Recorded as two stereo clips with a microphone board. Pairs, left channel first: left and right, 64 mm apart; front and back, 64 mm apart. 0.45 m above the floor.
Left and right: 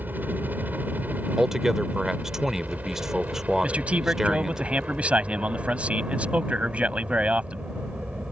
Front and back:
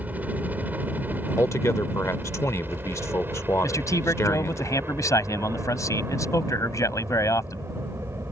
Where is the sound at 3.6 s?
20° right.